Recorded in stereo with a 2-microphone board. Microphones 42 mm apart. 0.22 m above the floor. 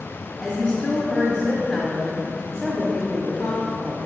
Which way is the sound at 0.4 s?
5° left (ahead or behind).